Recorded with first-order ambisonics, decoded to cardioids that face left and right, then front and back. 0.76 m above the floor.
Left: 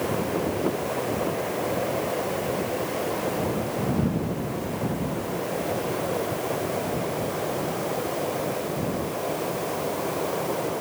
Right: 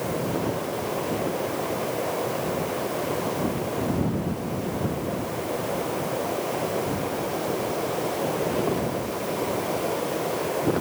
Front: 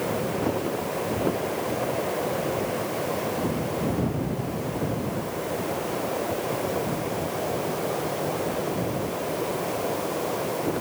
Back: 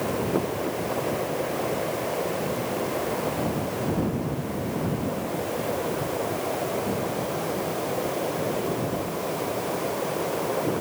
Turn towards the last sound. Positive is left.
No sound to turn to.